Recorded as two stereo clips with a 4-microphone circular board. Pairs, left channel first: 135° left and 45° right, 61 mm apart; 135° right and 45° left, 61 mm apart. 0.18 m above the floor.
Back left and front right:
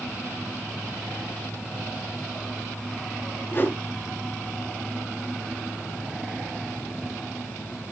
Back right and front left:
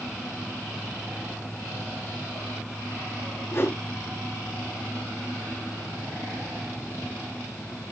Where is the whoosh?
175° right, 0.9 m.